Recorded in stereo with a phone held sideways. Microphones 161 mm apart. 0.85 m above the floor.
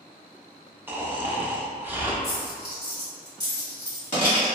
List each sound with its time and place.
0.9 s snoring: 10° right (ahead or behind), 0.5 m
2.2 s a dropped coin: 50° left (ahead or behind), 1.6 m